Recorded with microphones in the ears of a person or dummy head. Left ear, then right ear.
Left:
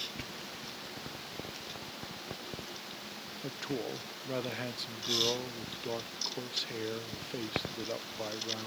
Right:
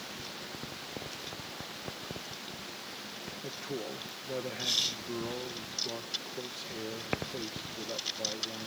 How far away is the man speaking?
About 0.8 m.